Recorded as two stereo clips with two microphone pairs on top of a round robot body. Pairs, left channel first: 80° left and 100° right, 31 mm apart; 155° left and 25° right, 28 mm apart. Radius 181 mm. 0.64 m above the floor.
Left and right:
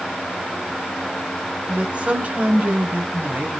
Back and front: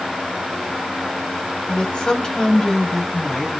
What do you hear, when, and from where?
1.7 s a woman speaking: 155° right, 4 m; by 3.6 s 125° right, 4.5 m